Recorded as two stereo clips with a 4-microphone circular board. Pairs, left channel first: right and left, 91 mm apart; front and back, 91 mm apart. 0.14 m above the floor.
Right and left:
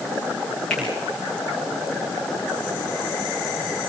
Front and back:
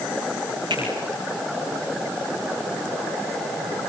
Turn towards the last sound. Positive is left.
turn(degrees=-170)